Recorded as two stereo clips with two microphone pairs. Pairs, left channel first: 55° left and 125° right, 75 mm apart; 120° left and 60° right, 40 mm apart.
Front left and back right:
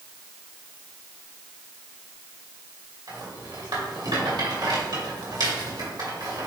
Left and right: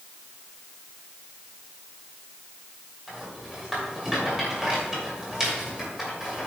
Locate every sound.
3.1 s a rattle: 140° right, 2.5 m